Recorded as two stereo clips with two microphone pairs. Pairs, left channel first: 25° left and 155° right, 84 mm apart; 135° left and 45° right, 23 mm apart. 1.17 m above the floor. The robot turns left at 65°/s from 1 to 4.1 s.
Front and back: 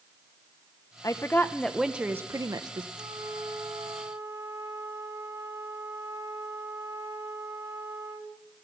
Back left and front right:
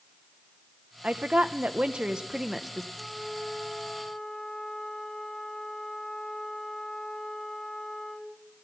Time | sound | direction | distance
1.0 | a woman speaking | 20° right | 0.6 m
3.0 | a flute | 120° right | 1.9 m